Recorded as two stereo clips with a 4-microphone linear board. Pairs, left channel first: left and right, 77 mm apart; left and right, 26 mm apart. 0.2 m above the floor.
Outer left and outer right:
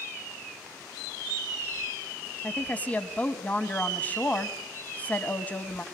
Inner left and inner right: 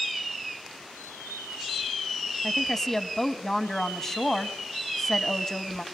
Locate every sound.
2.4 s a woman speaking: 20° left (ahead or behind), 1.1 m